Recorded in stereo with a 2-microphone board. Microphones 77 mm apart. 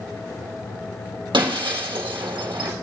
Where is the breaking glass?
75° right (ahead or behind), 4 m.